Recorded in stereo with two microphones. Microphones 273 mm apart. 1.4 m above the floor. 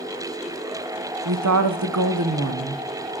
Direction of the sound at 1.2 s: 85° right.